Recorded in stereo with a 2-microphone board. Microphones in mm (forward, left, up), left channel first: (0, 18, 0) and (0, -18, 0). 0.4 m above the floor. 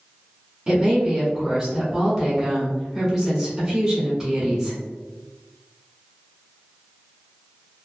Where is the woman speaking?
15° right (ahead or behind), 1.2 m.